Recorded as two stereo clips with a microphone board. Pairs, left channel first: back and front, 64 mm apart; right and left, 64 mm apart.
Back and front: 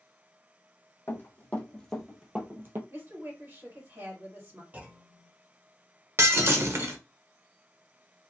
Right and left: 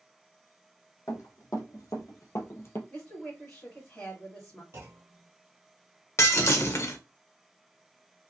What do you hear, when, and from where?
1.1 s running footsteps: 125° right, 1.5 m; by 2.8 s 40° right, 0.9 m
2.9 s a woman speaking: 20° right, 1.7 m
4.7 s a clunk: 60° left, 0.7 m
6.2 s breaking glass: 45° right, 0.6 m